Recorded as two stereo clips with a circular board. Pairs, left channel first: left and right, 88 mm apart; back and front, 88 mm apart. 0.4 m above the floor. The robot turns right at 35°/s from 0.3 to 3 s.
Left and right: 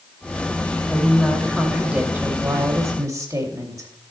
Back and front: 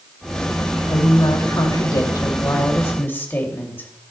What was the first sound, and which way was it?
A woman speaking, 165° left.